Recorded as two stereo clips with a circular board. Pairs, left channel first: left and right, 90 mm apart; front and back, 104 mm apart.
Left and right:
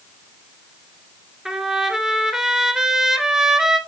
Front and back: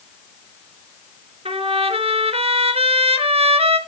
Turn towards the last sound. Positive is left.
turn(degrees=-175)